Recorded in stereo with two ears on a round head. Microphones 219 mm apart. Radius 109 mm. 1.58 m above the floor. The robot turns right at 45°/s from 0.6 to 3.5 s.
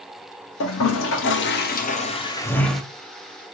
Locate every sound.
0.6 s a toilet flushing: 80° left, 0.6 m; by 2.8 s straight behind, 0.6 m